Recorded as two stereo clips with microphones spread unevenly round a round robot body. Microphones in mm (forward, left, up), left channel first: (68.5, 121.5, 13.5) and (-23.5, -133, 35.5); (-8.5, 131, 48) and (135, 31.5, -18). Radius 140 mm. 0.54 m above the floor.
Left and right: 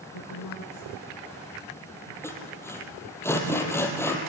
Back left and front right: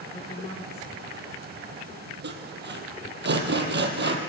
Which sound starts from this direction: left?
A woman speaking, at 0.1 s.